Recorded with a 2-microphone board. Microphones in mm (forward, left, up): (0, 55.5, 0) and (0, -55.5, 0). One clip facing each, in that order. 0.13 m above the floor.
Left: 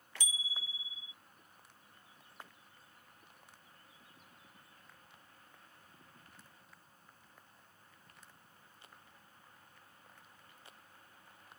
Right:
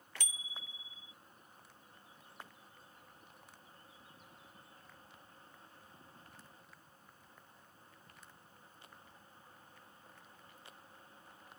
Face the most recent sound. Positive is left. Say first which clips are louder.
# left 9 dB
turn(degrees=-60)  # may be behind; listen again after turning